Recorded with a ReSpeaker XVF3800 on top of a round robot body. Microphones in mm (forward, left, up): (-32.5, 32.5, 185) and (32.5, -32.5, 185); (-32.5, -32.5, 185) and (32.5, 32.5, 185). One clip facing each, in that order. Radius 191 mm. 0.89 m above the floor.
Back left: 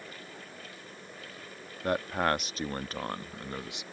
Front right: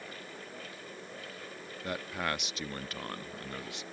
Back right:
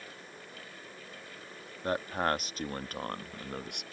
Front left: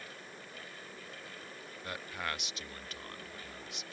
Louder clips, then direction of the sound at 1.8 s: Back left 7 dB, back right 10 dB; 175° left.